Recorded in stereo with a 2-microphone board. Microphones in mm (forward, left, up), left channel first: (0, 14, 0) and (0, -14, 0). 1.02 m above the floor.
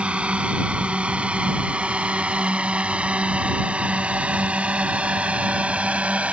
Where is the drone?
50° right (ahead or behind); by 6.3 s 55° right (ahead or behind).